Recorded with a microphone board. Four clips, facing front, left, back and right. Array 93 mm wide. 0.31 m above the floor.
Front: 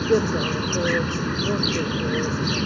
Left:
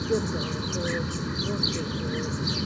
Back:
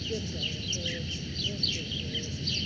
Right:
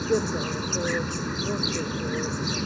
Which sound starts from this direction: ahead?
An insect, at 0.0 s.